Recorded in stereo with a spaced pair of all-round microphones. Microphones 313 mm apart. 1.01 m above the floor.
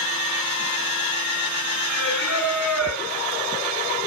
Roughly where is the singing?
Right.